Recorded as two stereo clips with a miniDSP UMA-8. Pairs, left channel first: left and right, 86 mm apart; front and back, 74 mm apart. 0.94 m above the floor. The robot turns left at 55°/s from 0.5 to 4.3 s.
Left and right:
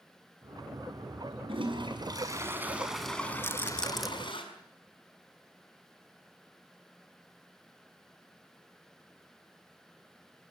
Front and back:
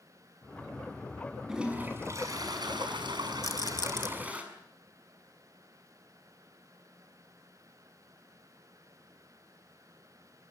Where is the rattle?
30° left, 1.8 m; by 4.1 s 5° right, 1.8 m.